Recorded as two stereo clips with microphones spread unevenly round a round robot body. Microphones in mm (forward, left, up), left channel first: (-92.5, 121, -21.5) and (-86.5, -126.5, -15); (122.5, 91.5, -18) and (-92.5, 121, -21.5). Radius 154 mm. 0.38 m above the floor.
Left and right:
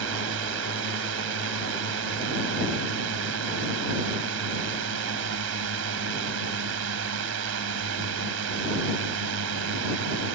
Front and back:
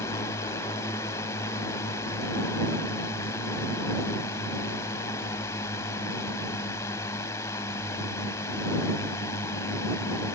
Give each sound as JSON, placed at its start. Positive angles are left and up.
{"t": 0.0, "sound": "a drone", "azimuth_deg": -85}